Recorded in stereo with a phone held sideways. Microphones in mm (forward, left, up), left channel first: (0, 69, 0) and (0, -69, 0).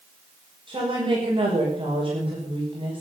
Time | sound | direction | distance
0.7 | a woman speaking | 35° right (ahead or behind) | 5.5 m